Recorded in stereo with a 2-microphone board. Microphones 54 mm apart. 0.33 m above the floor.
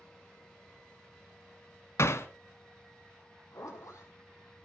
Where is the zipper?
65° left (ahead or behind), 4 m.